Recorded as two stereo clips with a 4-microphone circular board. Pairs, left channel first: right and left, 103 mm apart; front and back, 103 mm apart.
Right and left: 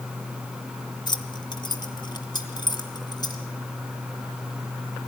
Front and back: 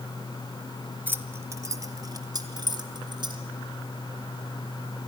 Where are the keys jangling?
115° right, 1.1 m; by 3.4 s 140° right, 2.5 m.